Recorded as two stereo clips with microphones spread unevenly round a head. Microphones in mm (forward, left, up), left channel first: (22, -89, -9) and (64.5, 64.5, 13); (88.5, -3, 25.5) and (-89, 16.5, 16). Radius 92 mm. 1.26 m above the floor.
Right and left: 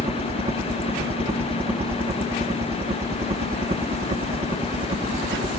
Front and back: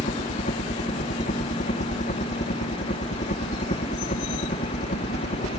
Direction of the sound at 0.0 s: 25° left.